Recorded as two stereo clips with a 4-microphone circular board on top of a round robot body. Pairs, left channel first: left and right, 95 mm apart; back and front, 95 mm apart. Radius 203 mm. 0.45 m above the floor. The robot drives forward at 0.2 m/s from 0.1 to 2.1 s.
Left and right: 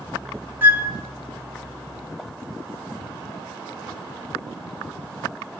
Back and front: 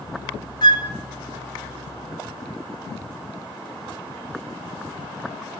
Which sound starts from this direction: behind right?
A flute, at 0.6 s.